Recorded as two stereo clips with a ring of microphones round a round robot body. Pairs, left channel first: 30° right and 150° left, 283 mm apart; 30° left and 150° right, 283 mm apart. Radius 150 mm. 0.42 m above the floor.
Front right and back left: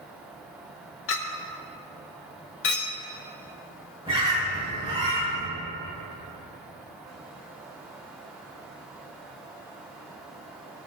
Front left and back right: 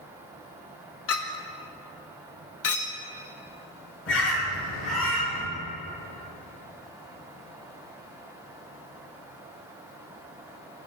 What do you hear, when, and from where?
1.1 s a clink: 5° left, 1.1 m
4.1 s a bird: 75° left, 3.5 m